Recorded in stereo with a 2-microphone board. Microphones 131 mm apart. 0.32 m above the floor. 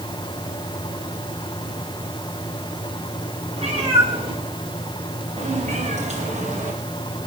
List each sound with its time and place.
3.6 s a cat meowing: 45° right (ahead or behind), 5.5 m; by 7.3 s 70° right (ahead or behind), 3.5 m